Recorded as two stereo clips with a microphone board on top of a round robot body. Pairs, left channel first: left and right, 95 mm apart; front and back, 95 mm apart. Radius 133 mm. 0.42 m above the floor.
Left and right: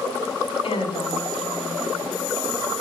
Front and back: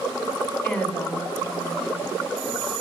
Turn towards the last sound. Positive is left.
turn(degrees=70)